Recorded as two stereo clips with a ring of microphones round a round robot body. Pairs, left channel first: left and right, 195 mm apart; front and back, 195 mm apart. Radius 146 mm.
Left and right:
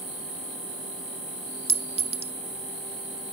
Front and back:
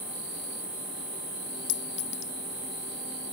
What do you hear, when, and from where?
1.7 s a clink: 30° right